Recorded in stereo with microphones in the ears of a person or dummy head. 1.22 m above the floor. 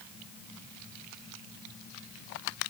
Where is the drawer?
No drawer in this recording.